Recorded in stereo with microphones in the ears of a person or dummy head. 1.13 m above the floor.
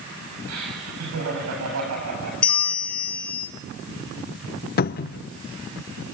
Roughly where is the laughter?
Right.